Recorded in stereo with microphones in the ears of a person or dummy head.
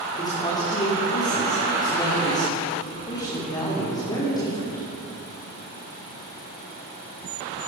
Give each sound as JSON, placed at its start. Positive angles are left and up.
{"t": 0.2, "sound": "a man speaking", "side_deg": 20, "distance_m": 3.0}